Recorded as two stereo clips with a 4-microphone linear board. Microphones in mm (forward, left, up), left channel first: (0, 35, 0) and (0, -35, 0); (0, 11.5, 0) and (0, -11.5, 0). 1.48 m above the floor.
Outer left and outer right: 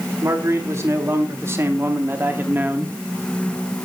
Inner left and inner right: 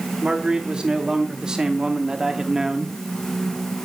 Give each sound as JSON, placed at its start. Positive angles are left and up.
{"t": 0.2, "sound": "a man speaking", "side_deg": -45, "distance_m": 3.5}